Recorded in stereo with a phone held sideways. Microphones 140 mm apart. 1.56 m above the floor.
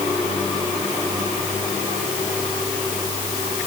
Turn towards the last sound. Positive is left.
No sound to turn to.